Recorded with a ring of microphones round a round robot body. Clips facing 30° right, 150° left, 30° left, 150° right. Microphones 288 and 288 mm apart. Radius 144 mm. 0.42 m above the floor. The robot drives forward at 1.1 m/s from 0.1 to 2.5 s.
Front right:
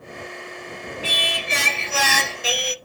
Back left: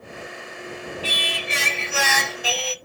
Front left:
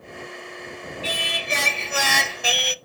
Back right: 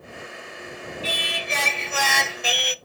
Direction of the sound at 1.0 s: 10° left.